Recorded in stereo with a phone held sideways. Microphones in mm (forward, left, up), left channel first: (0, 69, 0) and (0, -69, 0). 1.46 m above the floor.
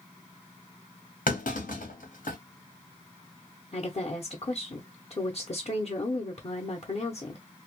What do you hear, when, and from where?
1.3 s a clunk: 80° left, 1.1 m
3.7 s a woman speaking: 50° left (ahead or behind), 0.8 m